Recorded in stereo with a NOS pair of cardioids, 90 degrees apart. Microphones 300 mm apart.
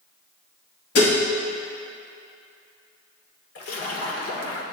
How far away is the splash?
About 1.4 m.